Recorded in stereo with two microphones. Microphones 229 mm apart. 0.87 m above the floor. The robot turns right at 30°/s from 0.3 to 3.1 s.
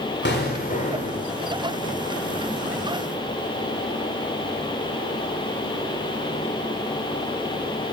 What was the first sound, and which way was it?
An explosion, 130° left.